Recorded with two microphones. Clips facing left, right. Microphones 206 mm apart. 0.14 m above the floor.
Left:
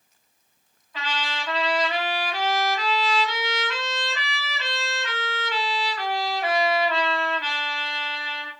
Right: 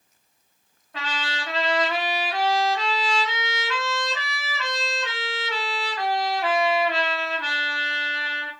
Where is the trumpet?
60° right (ahead or behind), 3 m.